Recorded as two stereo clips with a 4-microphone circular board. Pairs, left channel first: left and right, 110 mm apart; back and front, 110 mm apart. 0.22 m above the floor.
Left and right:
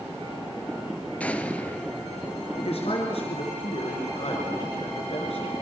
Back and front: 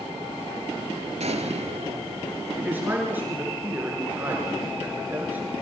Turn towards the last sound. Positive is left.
turn(degrees=75)